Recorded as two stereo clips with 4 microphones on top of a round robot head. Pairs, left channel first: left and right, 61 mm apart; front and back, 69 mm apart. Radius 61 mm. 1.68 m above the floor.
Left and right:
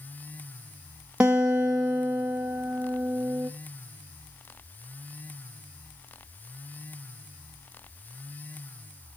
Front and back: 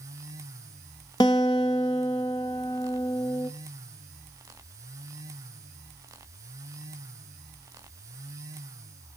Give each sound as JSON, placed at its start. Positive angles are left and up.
{"t": 1.2, "sound": "a guitar", "azimuth_deg": -10, "distance_m": 1.1}